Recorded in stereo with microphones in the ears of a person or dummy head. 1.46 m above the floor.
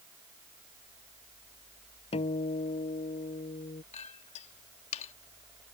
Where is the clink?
40° left (ahead or behind).